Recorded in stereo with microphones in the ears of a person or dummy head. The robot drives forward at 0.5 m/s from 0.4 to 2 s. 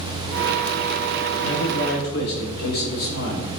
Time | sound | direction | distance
1.4 | a man speaking | 70° left (ahead or behind) | 1.5 m